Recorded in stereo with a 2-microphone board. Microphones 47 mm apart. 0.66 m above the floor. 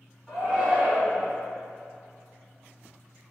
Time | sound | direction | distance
0.3 | a shout | 20° right (ahead or behind) | 2.0 m